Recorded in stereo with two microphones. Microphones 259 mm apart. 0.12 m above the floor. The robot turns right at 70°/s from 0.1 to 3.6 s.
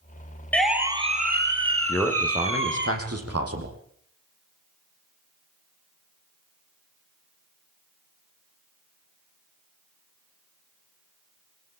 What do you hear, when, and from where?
0.5 s a siren: 5° left (ahead or behind), 3 m; by 2.9 s 40° right (ahead or behind), 3.5 m
1.9 s a man speaking: 175° left, 5 m; by 3.7 s 65° right, 5 m